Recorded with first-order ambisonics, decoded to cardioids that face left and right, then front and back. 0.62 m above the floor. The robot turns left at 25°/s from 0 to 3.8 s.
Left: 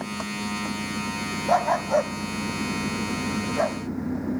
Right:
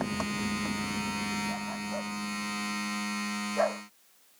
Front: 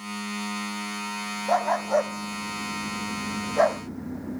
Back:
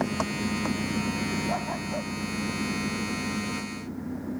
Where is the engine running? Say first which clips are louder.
Left 2 dB, back 4 dB; 175° right; by 4.4 s 90° left.